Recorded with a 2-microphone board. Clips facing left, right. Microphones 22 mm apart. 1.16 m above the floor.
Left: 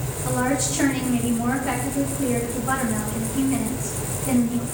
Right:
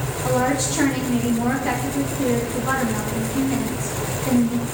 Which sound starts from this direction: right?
A woman speaking, at 0.2 s.